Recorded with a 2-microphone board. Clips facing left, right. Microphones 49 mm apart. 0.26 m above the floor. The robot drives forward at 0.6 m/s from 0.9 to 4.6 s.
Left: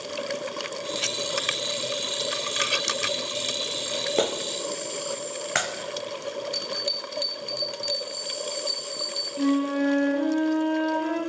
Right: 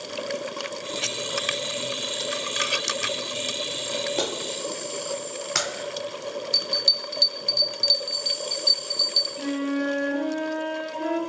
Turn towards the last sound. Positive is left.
turn(degrees=10)  # may be behind; listen again after turning